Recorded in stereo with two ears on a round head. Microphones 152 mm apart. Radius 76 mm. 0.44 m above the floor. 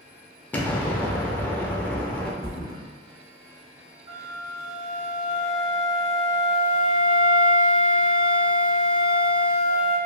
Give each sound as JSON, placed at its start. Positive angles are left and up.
{"t": 0.5, "sound": "an explosion", "side_deg": 10, "distance_m": 0.5}
{"t": 2.4, "sound": "a thud", "side_deg": -65, "distance_m": 1.0}
{"t": 4.1, "sound": "a flute", "side_deg": -20, "distance_m": 1.1}